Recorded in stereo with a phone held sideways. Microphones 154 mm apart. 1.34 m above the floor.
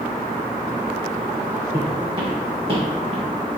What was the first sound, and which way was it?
Footsteps, 40° right (ahead or behind).